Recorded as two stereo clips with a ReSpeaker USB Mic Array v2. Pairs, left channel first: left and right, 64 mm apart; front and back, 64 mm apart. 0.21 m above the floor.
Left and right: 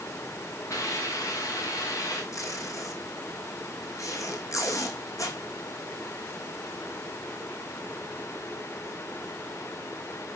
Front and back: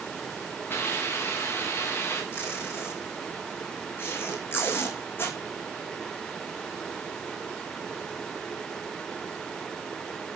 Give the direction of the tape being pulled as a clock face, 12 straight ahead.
10 o'clock.